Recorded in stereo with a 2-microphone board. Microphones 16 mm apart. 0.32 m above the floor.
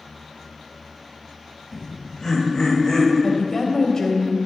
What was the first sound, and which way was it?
Laughter, 40° left (ahead or behind).